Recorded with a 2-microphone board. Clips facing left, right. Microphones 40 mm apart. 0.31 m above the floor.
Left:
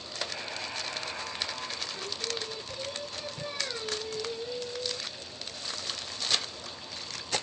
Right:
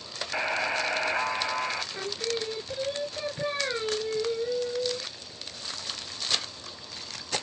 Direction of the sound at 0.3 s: 50° right (ahead or behind).